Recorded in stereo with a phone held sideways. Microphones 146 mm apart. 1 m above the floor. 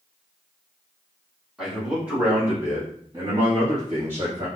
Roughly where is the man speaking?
Centre.